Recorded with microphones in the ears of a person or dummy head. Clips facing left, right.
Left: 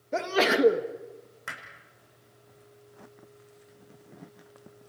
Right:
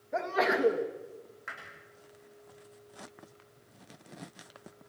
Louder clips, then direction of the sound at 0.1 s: Left 4 dB; 40° left (ahead or behind).